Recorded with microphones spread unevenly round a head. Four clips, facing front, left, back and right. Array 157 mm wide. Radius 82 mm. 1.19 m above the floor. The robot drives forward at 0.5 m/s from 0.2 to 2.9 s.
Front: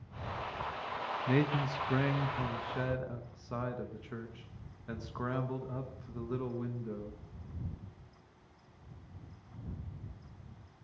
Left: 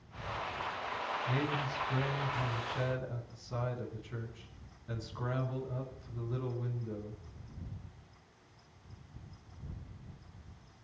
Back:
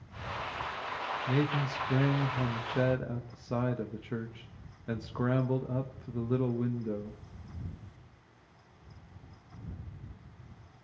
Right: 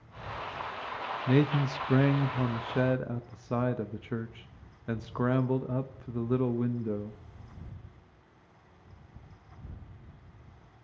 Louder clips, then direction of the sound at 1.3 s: Right 12 dB, even; 80° right.